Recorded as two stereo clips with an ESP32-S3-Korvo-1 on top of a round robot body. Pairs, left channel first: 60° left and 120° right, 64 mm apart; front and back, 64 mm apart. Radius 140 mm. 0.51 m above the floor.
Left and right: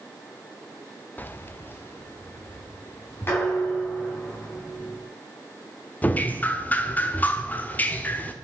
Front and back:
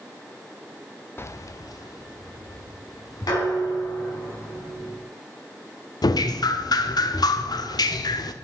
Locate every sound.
1.2 s keys jangling: 20° left, 0.5 m; by 4.2 s 5° left, 5 m
3.3 s dishes clattering: 5° left, 4 m
6.0 s dripping: 5° right, 0.7 m